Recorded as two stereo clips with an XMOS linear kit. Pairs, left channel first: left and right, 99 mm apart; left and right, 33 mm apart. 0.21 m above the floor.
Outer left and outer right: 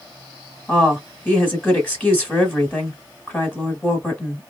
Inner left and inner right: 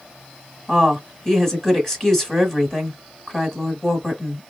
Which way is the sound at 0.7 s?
15° left (ahead or behind).